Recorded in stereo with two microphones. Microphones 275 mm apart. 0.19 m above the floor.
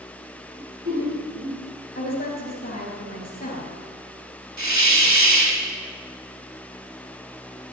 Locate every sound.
0.6 s laughter: 45° right (ahead or behind), 5 m
1.9 s a woman speaking: 30° left (ahead or behind), 3 m
4.6 s a hiss: 90° right, 1.2 m